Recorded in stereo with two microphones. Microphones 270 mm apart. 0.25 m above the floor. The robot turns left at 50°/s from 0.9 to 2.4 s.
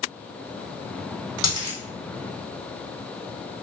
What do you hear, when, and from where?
1.4 s a dropped coin: 85° left, 1.7 m; by 1.8 s 70° left (ahead or behind), 1.7 m